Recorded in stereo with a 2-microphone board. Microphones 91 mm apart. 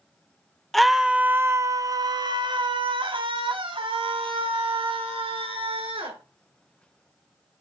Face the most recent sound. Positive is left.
turn(degrees=-80)